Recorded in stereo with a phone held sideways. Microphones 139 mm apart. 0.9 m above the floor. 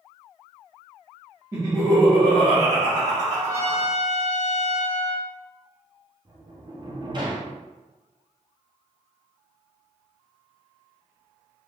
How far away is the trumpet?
About 2.0 m.